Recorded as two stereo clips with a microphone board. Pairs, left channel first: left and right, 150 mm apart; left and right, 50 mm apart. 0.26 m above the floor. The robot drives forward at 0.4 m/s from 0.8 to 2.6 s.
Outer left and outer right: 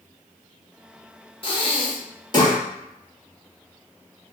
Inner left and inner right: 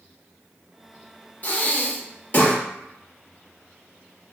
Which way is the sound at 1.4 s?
35° left (ahead or behind).